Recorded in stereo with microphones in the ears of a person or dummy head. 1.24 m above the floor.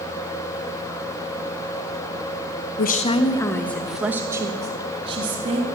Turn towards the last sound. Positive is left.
turn(degrees=-30)  # may be behind; listen again after turning